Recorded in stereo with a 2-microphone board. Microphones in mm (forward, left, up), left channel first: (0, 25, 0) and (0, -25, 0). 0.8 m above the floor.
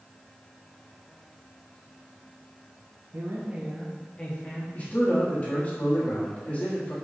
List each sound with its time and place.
3.1 s a woman speaking: 50° right (ahead or behind), 0.6 m; by 4.7 s 25° left (ahead or behind), 1.2 m
4.8 s a man speaking: 30° left (ahead or behind), 1.3 m